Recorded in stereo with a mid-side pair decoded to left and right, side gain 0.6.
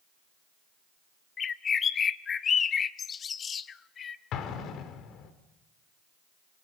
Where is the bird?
40° left, 1.0 m.